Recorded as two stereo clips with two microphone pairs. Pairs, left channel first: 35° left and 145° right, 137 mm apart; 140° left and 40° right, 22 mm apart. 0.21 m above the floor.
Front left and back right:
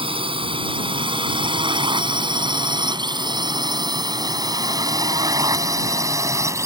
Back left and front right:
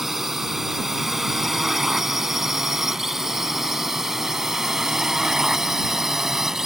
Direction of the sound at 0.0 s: 115° right.